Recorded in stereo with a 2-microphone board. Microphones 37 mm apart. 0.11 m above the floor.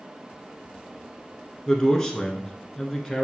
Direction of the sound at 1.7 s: 15° left (ahead or behind).